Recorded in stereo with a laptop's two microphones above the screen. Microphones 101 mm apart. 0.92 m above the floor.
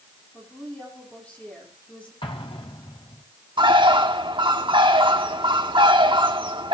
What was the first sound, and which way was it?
A woman speaking, 15° left (ahead or behind).